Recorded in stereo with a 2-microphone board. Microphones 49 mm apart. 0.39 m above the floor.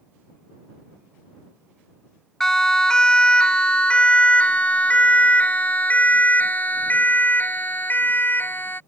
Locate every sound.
2.4 s a siren: 10° left (ahead or behind); by 8.8 s 45° left (ahead or behind)